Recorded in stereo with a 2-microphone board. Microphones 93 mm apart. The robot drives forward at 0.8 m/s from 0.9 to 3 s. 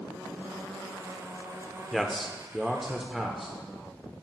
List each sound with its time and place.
1.9 s a man speaking: centre (ahead or behind), 0.8 m